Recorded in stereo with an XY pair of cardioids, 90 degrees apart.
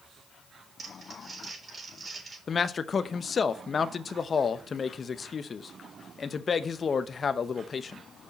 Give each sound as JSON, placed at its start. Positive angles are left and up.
{"t": 0.8, "sound": "crumpling", "azimuth_deg": -45, "distance_m": 3.5}
{"t": 2.5, "sound": "a man speaking", "azimuth_deg": 45, "distance_m": 0.6}